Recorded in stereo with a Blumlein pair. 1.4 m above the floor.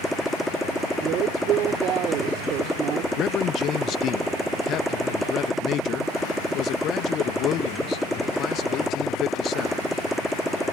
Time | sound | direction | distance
0.0 | a motorcycle | straight ahead | ?
1.0 | a woman speaking | 35° right | ?
3.1 | a man speaking | 35° left | ?